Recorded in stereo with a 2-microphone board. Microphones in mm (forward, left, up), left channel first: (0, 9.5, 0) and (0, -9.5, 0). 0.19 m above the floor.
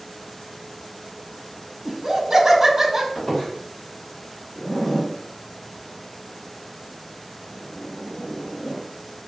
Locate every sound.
1.9 s laughter: 20° right (ahead or behind), 1.3 m
3.1 s a squeak: 50° left (ahead or behind), 2.0 m
4.5 s a zipper: 35° left (ahead or behind), 1.2 m